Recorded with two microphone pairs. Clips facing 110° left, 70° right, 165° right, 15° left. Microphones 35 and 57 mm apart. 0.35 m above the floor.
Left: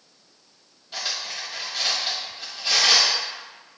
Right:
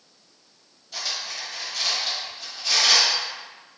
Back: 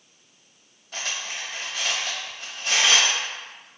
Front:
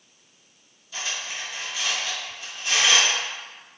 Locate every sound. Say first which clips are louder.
0.9 s cutlery clinking: left 1 dB, even; 175° left, 0.8 m